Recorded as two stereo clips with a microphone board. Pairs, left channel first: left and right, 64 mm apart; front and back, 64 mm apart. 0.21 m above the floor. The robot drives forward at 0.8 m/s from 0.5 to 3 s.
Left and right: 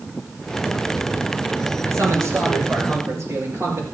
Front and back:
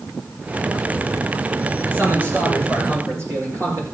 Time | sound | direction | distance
1.9 | a man speaking | 125° right | 3 m